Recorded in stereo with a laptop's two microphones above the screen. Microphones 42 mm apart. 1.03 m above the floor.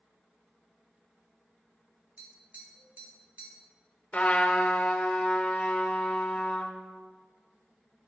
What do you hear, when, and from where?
2.2 s tapping: 35° right (ahead or behind), 3.5 m
4.1 s a trumpet: 30° left (ahead or behind), 1.0 m